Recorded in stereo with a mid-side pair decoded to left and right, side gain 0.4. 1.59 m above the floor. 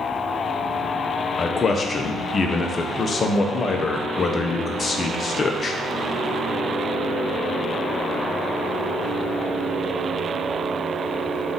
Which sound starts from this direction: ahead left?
A man speaking, at 1.4 s.